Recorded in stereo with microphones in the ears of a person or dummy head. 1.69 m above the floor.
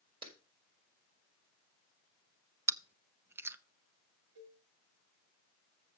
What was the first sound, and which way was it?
A clap, 30° right (ahead or behind).